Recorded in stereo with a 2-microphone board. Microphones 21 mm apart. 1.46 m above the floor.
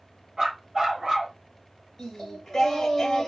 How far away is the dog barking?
About 1.2 m.